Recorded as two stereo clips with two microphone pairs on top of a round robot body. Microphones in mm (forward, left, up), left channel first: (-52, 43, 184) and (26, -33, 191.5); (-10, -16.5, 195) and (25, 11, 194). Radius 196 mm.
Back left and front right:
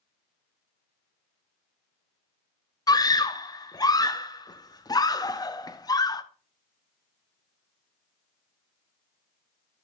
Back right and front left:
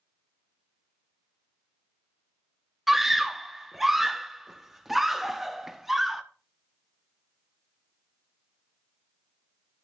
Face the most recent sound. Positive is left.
turn(degrees=115)